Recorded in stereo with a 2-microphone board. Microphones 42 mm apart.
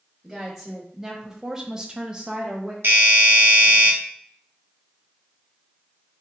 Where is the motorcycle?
I don't hear a motorcycle.